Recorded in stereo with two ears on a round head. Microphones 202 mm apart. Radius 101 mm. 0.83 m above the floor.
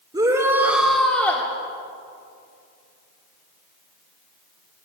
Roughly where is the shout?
Centre.